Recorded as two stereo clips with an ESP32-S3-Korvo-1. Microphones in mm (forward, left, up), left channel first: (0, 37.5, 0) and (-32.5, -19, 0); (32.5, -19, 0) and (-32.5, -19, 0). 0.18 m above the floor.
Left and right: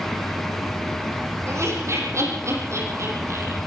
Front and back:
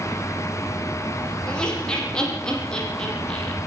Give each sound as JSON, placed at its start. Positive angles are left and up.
{"t": 1.5, "sound": "laughter", "azimuth_deg": -75, "distance_m": 8.0}